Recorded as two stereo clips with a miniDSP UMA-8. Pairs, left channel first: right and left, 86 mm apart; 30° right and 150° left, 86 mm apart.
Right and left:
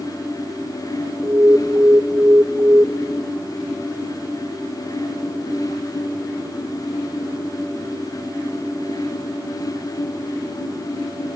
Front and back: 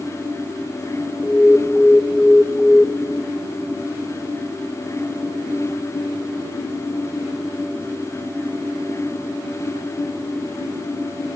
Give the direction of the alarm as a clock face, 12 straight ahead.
10 o'clock.